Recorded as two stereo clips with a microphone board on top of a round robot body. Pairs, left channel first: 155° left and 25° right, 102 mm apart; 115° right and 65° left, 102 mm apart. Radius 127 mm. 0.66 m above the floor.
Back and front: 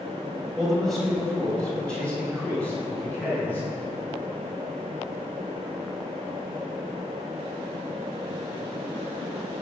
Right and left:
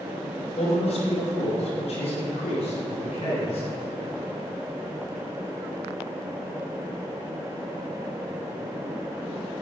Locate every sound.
0.6 s a man speaking: 110° right, 5 m; by 3.7 s 130° right, 9 m